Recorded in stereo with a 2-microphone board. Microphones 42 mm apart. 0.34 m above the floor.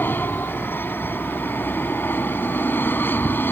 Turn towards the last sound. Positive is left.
turn(degrees=55)  # may be behind; listen again after turning